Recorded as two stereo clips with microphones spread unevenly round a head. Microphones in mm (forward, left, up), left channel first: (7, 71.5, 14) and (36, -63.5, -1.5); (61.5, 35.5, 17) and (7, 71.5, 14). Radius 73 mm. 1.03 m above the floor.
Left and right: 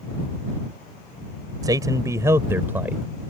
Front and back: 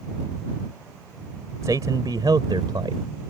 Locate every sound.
1.6 s a man speaking: 145° right; by 3.0 s 160° right